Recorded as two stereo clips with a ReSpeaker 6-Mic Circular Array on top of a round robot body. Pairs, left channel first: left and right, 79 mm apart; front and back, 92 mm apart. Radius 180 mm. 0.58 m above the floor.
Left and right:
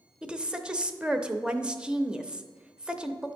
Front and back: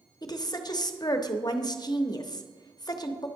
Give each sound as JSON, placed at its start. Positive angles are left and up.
{"t": 0.2, "sound": "a woman speaking", "azimuth_deg": -15, "distance_m": 0.8}